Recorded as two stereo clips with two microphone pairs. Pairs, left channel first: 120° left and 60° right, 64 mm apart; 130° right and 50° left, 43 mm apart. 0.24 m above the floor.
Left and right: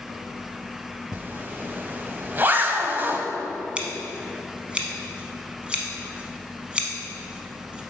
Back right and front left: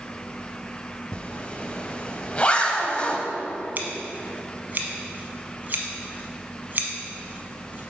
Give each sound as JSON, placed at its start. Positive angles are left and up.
{"t": 1.1, "sound": "a zipper", "azimuth_deg": -90, "distance_m": 0.6}
{"t": 3.8, "sound": "scissors", "azimuth_deg": 10, "distance_m": 0.9}